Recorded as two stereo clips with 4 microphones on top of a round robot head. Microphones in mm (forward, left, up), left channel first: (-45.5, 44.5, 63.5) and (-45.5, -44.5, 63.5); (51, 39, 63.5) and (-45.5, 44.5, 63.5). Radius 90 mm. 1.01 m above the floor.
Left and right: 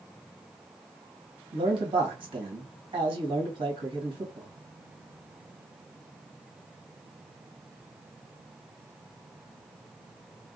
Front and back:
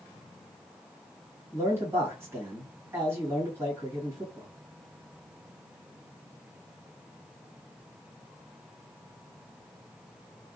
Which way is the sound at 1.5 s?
115° right.